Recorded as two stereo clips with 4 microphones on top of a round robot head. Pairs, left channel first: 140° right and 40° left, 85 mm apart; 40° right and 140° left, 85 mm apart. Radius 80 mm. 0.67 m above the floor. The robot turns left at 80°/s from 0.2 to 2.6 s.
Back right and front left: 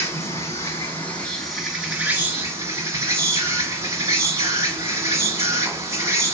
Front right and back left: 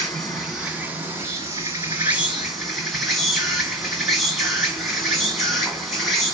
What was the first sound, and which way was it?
An insect, 115° right.